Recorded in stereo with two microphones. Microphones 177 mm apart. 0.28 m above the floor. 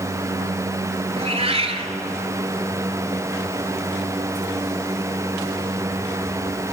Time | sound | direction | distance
1.2 | a cat meowing | 35° right (ahead or behind) | 1.0 m